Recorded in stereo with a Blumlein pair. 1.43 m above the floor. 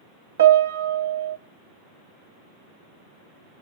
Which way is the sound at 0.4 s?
65° right.